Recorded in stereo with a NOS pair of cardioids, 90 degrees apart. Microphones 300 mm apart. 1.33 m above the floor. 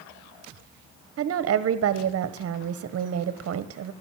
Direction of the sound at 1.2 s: 55° right.